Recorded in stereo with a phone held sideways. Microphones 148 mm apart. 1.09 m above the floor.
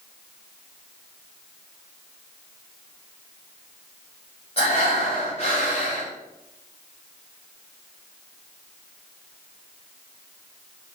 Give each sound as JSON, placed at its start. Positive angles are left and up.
{"t": 4.6, "sound": "breathing", "side_deg": 45, "distance_m": 5.0}